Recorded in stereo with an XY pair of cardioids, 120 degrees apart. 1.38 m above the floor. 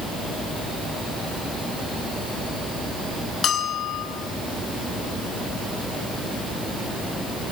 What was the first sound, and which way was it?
A bell, 50° left.